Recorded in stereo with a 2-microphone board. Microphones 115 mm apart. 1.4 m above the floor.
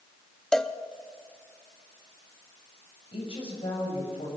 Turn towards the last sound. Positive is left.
turn(degrees=55)  # may be behind; listen again after turning